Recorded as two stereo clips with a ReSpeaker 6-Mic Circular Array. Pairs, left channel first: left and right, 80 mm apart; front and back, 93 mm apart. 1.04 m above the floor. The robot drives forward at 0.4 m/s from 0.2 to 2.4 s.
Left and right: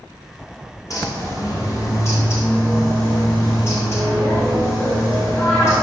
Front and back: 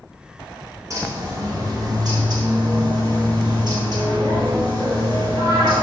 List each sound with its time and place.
0.9 s a bird: 130° left, 1.7 m; by 5.8 s 140° left, 2 m